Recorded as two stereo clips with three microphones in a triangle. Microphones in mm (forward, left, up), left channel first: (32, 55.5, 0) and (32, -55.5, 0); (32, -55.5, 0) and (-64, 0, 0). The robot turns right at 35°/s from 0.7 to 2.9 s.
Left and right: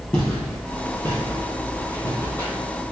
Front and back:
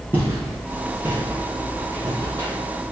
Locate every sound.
0.1 s footsteps: 140° left, 1.6 m